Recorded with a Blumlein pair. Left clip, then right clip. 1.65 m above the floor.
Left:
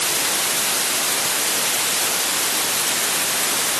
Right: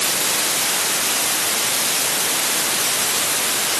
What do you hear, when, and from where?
Only background noise.